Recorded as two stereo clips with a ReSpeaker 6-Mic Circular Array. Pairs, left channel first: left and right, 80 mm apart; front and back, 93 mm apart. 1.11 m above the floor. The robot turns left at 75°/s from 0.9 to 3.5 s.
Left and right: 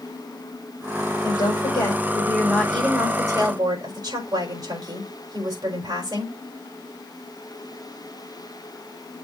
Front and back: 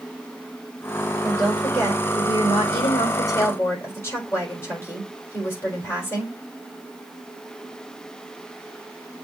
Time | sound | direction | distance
1.2 | a woman speaking | 105° left | 4 m